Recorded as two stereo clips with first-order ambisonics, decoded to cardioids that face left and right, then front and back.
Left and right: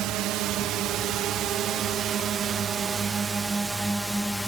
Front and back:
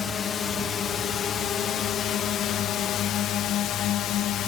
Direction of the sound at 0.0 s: 60° right.